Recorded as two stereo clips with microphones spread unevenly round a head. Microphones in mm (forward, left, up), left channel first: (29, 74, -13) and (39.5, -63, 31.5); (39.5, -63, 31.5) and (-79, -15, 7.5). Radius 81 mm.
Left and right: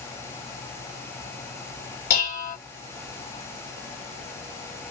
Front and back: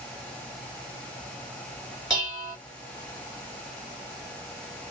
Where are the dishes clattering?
65° left, 2 m.